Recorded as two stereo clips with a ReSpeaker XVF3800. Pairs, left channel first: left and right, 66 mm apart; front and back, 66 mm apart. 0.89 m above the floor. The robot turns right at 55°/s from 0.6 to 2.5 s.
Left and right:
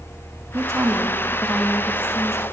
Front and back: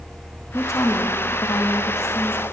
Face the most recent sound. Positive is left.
turn(degrees=55)